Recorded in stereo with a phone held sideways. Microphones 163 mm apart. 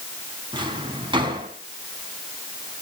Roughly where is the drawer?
Right.